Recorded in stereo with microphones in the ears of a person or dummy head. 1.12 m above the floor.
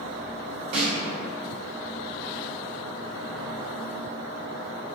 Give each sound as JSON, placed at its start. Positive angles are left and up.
{"t": 0.7, "sound": "a snare drum", "side_deg": -30, "distance_m": 0.5}